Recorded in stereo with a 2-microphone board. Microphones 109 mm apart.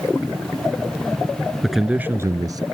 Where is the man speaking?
Centre (ahead or behind); by 2.6 s 40° right (ahead or behind).